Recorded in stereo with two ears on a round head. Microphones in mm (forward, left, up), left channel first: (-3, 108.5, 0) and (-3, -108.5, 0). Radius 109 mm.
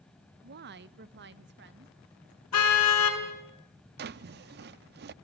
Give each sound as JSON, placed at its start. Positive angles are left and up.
{"t": 0.4, "sound": "a woman speaking", "side_deg": -45, "distance_m": 0.8}
{"t": 2.5, "sound": "a car horn", "side_deg": 70, "distance_m": 4.5}
{"t": 4.0, "sound": "a drawer", "side_deg": -45, "distance_m": 0.5}